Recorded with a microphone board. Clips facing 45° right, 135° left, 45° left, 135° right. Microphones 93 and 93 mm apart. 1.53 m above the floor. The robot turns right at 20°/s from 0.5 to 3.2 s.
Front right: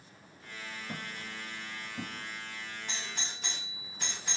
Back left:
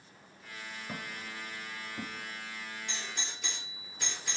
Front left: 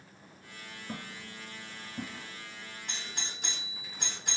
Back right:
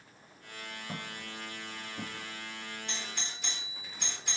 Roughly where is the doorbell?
Ahead.